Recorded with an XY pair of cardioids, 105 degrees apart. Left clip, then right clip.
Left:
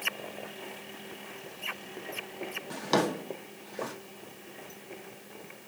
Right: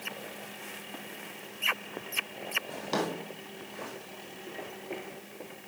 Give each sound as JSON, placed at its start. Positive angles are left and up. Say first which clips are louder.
{"t": 2.7, "sound": "a drawer", "louder": "left 4 dB", "azimuth_deg": 40, "distance_m": 1.6}